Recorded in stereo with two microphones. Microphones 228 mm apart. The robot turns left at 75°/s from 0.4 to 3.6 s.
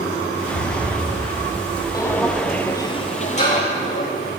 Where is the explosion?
75° left, 4.5 m; by 2.5 s 80° right, 4.5 m.